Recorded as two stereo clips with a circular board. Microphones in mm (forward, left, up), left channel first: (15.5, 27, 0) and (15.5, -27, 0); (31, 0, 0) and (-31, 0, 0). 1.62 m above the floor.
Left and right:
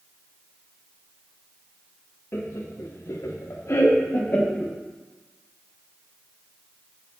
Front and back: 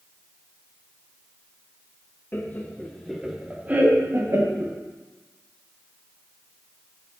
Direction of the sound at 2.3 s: 55° left.